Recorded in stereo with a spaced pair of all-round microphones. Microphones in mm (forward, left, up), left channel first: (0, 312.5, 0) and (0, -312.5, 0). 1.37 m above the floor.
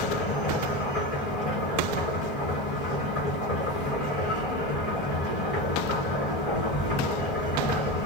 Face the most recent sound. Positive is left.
turn(degrees=55)  # may be behind; listen again after turning